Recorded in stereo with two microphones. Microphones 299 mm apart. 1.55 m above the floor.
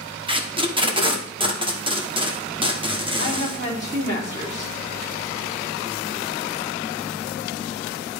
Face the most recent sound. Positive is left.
turn(degrees=-35)  # may be behind; listen again after turning